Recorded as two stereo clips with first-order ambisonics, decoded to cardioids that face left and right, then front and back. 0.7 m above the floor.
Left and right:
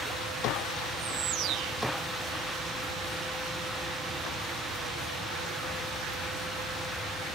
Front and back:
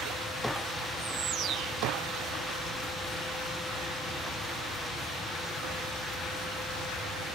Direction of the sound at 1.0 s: 130° right.